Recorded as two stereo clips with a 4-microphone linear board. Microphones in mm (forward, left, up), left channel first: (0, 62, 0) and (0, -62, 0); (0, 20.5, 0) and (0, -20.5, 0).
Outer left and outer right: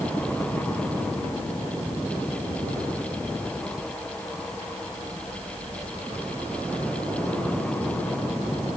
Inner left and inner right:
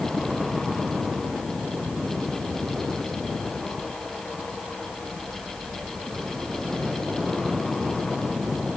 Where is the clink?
I don't hear a clink.